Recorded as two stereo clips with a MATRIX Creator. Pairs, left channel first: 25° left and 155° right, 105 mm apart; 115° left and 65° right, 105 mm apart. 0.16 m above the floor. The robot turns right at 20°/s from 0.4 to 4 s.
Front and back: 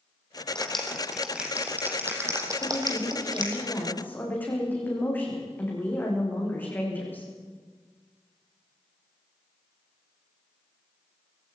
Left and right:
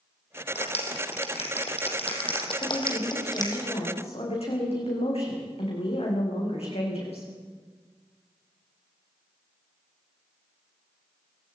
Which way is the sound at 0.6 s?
105° left.